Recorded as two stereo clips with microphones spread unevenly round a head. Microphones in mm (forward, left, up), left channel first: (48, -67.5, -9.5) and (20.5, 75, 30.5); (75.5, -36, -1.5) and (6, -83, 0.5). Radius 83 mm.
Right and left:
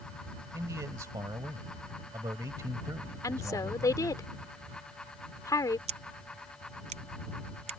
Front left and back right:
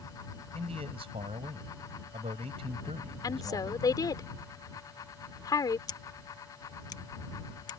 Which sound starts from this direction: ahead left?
Scissors, at 5.9 s.